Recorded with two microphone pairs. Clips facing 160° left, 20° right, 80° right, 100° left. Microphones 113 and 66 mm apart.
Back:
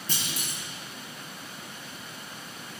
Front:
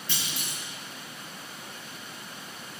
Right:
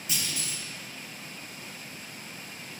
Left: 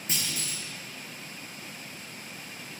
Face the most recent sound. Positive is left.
turn(degrees=140)